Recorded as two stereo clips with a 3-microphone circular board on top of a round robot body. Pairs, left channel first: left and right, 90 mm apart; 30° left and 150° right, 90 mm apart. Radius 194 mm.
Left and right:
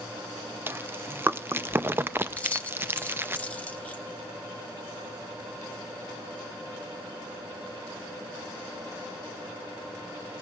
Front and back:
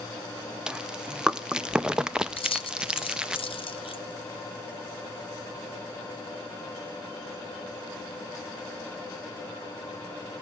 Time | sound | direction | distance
0.7 | chewing | 80° right | 0.8 m
2.4 | keys jangling | 15° left | 1.2 m